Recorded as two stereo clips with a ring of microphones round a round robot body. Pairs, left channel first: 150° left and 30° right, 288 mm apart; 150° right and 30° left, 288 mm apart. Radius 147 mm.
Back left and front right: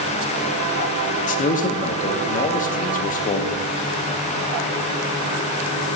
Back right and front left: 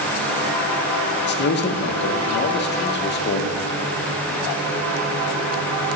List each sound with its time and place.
1.3 s a man speaking: 170° right, 0.5 m